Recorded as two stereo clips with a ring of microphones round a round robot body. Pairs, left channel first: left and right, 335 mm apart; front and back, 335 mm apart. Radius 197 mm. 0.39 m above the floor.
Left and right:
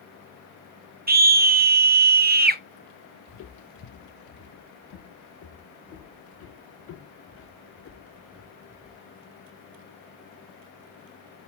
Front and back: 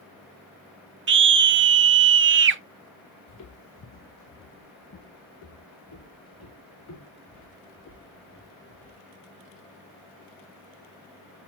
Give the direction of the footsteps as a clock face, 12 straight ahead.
11 o'clock.